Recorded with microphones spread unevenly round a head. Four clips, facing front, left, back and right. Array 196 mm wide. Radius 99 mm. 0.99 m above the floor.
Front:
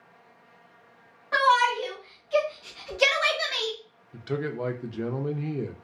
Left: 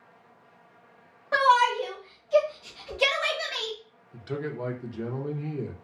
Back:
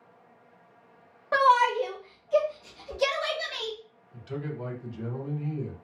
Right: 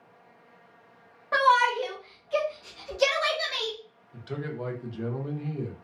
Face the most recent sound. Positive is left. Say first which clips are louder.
# left 2 dB, front 6 dB
turn(degrees=15)